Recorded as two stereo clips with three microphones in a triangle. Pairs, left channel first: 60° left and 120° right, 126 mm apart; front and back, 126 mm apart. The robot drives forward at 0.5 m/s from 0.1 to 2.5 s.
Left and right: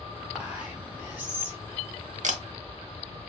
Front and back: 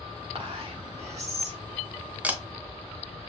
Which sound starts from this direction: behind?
Whispering, at 0.3 s.